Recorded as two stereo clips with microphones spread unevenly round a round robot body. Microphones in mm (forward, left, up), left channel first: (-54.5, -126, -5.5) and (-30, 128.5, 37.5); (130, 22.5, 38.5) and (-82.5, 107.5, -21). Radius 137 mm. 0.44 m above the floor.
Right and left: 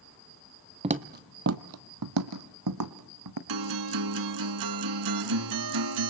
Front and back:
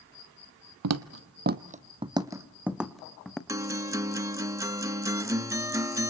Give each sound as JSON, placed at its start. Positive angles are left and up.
{"t": 0.8, "sound": "footsteps", "azimuth_deg": 145, "distance_m": 0.8}
{"t": 3.5, "sound": "a guitar", "azimuth_deg": 80, "distance_m": 1.4}